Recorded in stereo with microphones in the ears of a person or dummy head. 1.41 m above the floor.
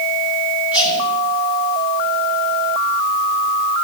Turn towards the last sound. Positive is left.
turn(degrees=20)  # may be behind; listen again after turning